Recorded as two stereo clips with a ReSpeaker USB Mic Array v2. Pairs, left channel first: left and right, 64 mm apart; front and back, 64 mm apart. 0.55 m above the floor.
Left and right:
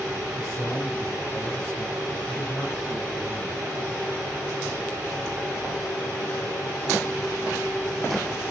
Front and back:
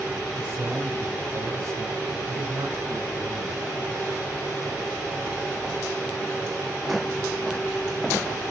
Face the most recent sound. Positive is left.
turn(degrees=-175)